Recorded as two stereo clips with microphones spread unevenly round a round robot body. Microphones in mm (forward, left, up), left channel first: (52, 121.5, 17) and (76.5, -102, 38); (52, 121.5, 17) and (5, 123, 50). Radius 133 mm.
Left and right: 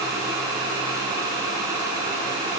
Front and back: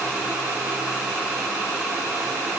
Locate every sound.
Only background noise.